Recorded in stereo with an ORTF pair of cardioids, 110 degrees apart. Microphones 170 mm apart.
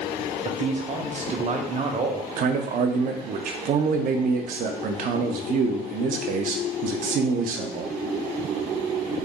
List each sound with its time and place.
0.5 s a man speaking: 45° right, 0.9 m
2.4 s a man speaking: 55° right, 0.5 m